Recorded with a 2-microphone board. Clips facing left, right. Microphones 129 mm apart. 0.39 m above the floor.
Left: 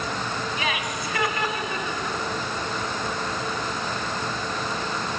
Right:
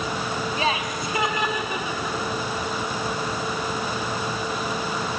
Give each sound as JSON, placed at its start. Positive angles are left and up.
{"t": 0.6, "sound": "laughter", "side_deg": -35, "distance_m": 3.0}